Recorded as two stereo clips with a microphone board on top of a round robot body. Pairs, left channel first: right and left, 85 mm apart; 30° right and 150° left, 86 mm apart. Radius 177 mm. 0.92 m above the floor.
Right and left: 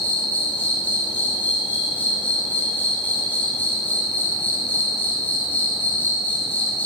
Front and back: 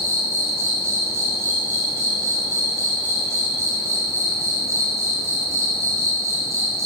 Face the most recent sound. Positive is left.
turn(degrees=-155)